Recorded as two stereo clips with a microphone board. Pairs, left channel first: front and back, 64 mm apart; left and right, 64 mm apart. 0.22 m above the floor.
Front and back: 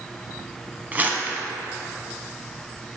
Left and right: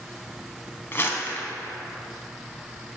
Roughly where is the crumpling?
Behind left.